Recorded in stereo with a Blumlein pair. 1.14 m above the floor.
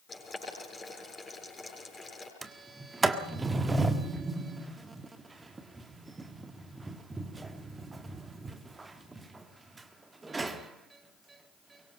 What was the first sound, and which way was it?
Boiling, 15° left.